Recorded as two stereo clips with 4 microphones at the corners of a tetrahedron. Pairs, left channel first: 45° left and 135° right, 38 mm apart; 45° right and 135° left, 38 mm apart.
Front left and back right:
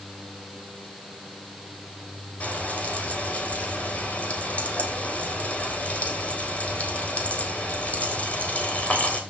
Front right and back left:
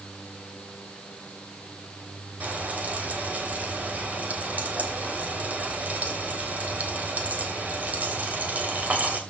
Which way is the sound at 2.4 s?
95° left.